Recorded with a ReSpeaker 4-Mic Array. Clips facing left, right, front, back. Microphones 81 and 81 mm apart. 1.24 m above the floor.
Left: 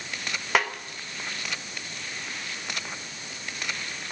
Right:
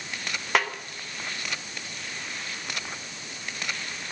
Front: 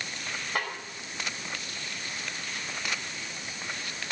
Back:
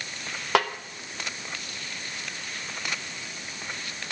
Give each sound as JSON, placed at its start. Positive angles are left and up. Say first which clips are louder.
{"t": 0.6, "sound": "a snare drum", "louder": "even, back 10 dB", "azimuth_deg": 175, "distance_m": 0.8}